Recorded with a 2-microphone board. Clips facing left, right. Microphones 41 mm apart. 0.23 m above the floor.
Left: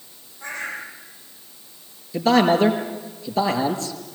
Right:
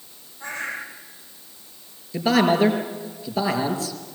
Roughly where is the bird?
Right.